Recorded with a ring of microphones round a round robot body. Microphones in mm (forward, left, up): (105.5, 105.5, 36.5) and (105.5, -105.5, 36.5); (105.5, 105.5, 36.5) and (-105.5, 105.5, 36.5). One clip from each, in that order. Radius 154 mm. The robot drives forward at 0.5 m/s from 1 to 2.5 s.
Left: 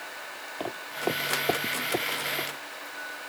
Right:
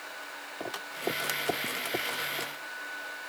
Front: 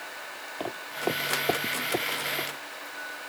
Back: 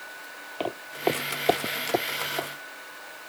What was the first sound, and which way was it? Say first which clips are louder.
Footsteps: left 4 dB, back 3 dB; 150° left.